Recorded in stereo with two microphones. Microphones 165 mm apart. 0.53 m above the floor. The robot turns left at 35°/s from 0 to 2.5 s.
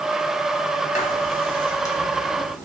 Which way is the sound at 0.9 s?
45° left (ahead or behind).